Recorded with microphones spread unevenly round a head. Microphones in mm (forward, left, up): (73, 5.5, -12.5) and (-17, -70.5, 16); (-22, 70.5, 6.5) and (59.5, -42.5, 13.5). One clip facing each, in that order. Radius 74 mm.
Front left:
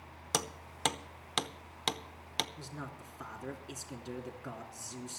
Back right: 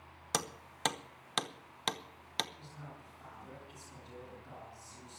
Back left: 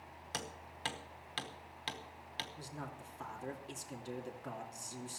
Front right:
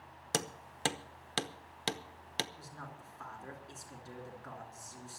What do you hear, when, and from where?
0.3 s hammering: 55° right, 0.8 m
2.6 s a man speaking: 70° left, 3 m